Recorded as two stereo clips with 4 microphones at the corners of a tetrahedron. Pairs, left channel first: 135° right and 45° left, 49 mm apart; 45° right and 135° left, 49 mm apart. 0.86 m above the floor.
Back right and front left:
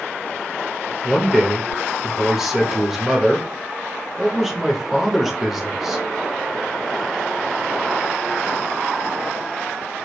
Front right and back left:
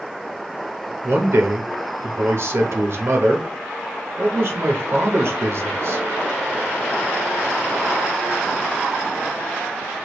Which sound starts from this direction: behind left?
A man speaking, at 1.0 s.